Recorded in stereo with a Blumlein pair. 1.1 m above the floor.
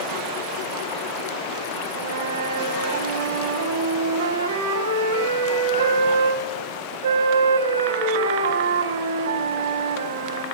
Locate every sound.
1.9 s a flute: 65° right, 5 m